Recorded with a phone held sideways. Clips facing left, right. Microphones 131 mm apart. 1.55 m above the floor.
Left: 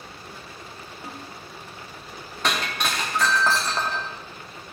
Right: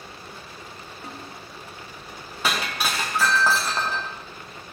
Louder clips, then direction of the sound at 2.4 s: Even; 5° right (ahead or behind).